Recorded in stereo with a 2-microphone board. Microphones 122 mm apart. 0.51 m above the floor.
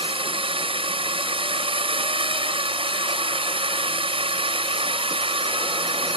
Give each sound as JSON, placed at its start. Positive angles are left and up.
{"t": 0.0, "sound": "a drone", "side_deg": -50}